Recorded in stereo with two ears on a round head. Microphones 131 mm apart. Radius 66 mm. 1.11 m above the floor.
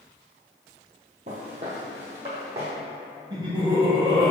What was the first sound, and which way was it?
Footsteps, 50° right (ahead or behind).